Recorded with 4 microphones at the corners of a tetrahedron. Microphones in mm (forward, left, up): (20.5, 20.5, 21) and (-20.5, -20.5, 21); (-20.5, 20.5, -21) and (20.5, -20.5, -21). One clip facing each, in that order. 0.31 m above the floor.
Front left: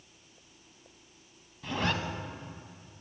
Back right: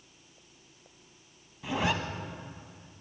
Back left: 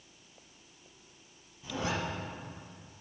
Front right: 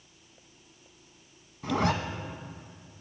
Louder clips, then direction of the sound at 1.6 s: Back right 2 dB, front right 8 dB; 55° right.